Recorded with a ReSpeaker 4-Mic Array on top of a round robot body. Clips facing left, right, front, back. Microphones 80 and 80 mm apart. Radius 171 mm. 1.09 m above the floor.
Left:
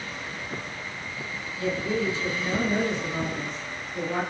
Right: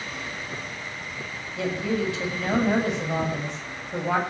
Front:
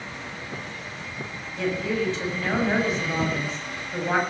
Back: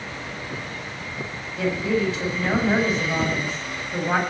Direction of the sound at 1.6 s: 95° right.